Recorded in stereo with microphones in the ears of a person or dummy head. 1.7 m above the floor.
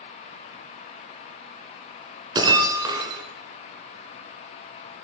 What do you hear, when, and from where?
2.4 s breaking glass: 20° right (ahead or behind), 2.5 m